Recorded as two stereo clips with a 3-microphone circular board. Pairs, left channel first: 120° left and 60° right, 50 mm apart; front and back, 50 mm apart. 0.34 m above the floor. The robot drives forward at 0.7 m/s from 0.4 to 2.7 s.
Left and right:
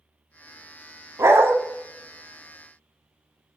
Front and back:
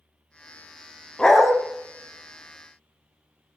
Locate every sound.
1.2 s a dog barking: 75° right, 0.6 m; by 1.6 s 100° right, 0.6 m